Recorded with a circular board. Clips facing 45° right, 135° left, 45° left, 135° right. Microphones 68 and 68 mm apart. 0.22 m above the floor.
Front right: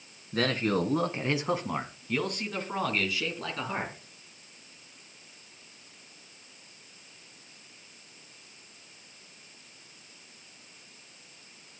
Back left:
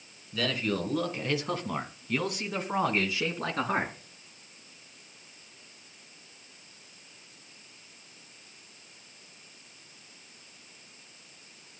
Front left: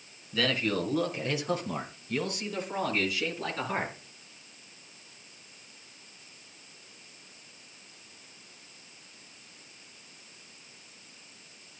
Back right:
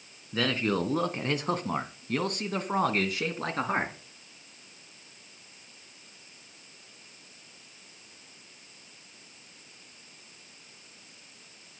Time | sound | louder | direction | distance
0.3 | a man speaking | front right 3 dB, back right 1 dB | 80° right | 3 m